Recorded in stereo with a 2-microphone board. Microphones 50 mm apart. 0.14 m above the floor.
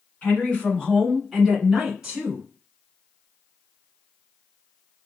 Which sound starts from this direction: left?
A woman speaking, at 0.2 s.